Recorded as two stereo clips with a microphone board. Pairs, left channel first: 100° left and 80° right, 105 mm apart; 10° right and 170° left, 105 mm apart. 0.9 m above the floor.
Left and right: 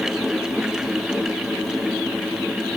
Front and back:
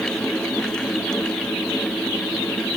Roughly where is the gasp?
I don't hear a gasp.